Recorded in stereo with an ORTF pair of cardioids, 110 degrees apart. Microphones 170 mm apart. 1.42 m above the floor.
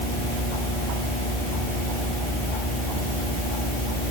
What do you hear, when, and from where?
Only background noise.